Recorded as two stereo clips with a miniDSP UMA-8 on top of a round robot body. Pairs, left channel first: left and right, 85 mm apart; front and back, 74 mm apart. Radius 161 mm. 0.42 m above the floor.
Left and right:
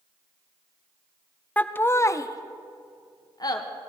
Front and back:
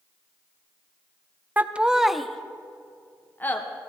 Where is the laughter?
145° left, 0.7 m; by 3.6 s 60° left, 1.3 m.